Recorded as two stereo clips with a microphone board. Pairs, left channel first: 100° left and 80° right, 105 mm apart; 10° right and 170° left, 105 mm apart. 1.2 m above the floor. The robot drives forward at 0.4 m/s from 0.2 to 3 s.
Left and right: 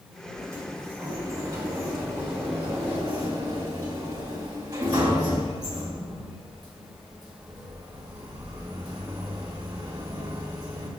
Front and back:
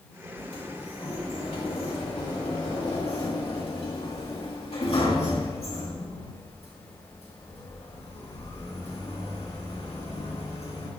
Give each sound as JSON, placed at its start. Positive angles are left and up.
{"t": 0.4, "sound": "a sliding door", "azimuth_deg": -20, "distance_m": 3.0}